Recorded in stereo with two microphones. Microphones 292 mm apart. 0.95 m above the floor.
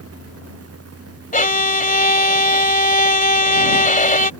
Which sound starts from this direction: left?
A violin, at 1.3 s.